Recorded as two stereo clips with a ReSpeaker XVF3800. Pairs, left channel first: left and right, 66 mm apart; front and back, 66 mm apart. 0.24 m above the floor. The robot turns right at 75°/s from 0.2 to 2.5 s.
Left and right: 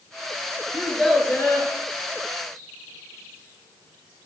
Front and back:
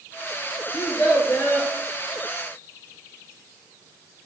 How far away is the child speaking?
About 2.5 m.